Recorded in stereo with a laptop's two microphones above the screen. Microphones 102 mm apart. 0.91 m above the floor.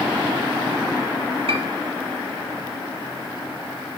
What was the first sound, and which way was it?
A piano, 80° right.